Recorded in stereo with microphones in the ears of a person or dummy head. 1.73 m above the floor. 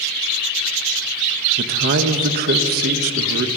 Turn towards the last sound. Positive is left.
turn(degrees=-50)  # may be behind; listen again after turning